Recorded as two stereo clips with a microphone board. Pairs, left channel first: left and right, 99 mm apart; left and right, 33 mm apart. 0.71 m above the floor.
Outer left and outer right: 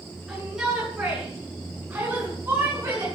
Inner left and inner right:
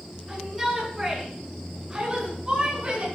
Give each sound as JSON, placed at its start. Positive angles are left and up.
{"t": 0.3, "sound": "a shout", "side_deg": -5, "distance_m": 9.0}